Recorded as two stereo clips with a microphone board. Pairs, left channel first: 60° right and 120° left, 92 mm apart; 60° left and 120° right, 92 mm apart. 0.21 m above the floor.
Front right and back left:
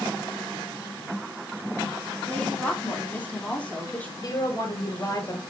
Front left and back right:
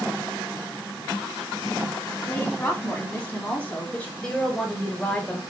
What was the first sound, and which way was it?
A woman speaking, straight ahead.